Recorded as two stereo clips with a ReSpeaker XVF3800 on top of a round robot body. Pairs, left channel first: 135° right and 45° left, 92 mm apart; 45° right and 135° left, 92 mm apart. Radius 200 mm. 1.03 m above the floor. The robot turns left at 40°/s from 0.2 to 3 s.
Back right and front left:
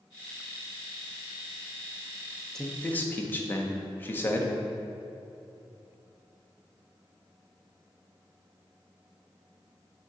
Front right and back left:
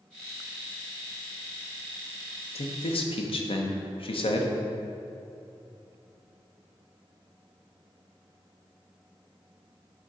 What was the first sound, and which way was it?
A man speaking, 50° right.